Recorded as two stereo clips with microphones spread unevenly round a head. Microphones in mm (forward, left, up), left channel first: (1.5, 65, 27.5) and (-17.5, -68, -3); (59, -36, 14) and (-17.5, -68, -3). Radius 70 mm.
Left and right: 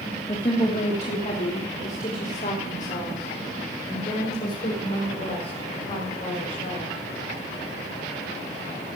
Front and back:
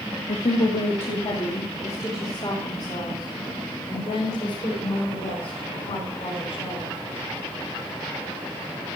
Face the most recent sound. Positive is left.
turn(degrees=40)